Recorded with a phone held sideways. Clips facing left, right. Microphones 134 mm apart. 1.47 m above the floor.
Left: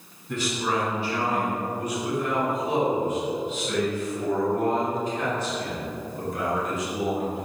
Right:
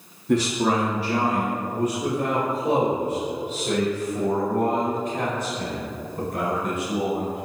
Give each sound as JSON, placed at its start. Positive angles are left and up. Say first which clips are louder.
{"t": 0.3, "sound": "a man speaking", "louder": "right 6 dB", "side_deg": -80, "distance_m": 2.0}